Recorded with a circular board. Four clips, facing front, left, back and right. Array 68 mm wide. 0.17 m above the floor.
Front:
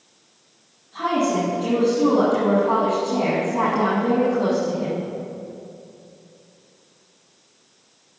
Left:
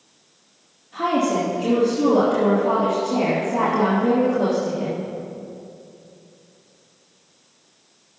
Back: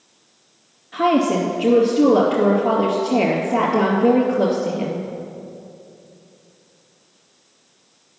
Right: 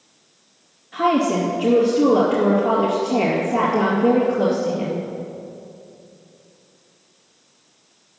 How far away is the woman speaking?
About 2.5 m.